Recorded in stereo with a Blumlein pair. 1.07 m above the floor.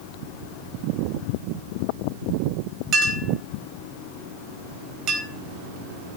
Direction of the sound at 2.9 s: 30° right.